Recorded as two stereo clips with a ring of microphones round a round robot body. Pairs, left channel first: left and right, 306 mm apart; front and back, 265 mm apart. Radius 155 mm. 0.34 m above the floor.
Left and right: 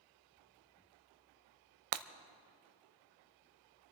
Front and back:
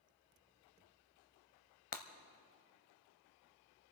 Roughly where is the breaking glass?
Ahead right.